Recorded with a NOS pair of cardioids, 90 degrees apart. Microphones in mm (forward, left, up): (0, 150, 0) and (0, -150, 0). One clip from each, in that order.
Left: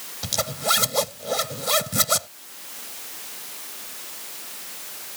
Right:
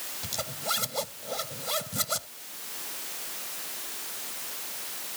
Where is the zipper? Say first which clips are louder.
Left 9 dB; 60° left.